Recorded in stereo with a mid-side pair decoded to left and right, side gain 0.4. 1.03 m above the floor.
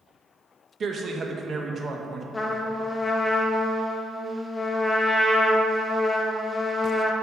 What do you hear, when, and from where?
0.8 s a man speaking: 45° right, 0.6 m
2.3 s a trumpet: 30° left, 0.5 m